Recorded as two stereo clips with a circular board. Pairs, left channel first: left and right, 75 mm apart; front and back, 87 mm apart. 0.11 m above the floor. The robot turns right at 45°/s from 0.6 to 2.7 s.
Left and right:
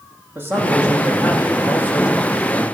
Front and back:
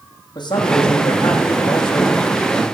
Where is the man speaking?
30° right, 5 m; by 2.6 s 65° left, 5 m.